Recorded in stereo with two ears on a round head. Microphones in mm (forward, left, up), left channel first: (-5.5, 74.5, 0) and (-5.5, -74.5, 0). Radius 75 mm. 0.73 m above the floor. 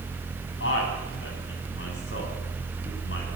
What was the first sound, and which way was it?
A man speaking, 85° left.